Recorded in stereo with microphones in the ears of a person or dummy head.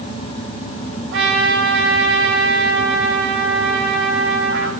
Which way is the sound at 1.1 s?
75° right (ahead or behind).